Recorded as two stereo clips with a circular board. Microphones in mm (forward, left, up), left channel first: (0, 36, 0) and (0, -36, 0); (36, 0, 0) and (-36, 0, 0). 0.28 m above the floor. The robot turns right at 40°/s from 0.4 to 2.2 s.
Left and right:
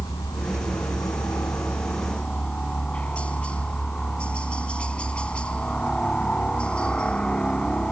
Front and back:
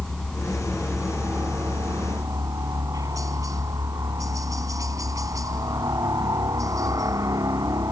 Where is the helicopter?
85° left; by 7.9 s 165° left.